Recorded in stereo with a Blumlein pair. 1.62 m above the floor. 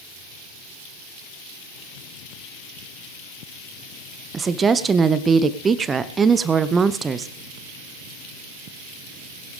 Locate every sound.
4.3 s a woman speaking: 20° right, 0.8 m